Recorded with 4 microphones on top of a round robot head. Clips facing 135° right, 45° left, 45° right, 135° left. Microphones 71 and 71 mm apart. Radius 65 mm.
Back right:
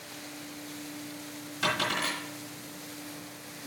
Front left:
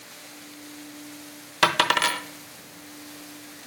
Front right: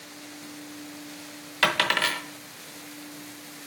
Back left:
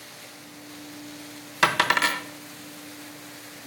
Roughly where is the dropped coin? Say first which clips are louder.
Front left 9 dB, back left 3 dB; ahead left.